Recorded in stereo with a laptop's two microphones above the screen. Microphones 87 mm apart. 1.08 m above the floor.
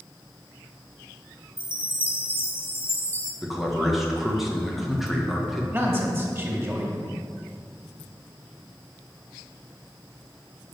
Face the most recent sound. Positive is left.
turn(degrees=-25)  # may be behind; listen again after turning